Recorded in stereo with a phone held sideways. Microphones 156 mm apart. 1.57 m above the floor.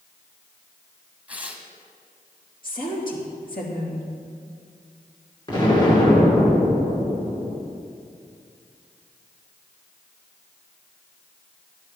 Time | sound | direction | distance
1.3 | tearing paper | 10° right (ahead or behind) | 1.6 m
2.6 | a woman speaking | 65° left (ahead or behind) | 2.5 m
5.5 | an explosion | 25° left (ahead or behind) | 2 m